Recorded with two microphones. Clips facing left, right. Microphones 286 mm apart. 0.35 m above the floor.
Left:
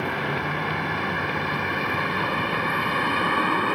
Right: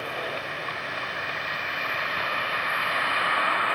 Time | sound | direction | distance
0.0 | a vehicle | 70° left (ahead or behind) | ?